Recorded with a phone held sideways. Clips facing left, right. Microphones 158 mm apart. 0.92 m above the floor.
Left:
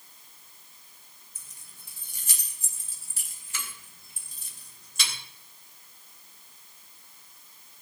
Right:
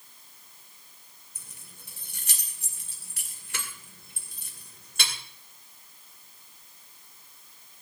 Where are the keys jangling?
75° right (ahead or behind), 2.5 m; by 5.1 s 65° right (ahead or behind), 3 m.